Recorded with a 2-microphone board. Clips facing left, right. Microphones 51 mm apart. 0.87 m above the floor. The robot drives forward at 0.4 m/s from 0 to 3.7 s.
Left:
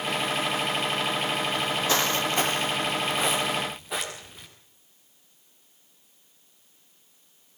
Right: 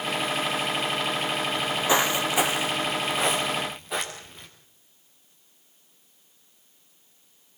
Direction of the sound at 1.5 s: 20° right (ahead or behind).